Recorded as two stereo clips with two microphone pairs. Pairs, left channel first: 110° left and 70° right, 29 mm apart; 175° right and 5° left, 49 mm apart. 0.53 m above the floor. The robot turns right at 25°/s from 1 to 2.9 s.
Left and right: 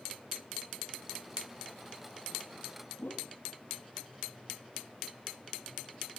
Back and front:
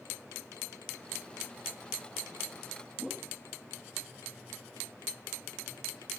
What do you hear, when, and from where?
3.0 s a whoosh: 90° left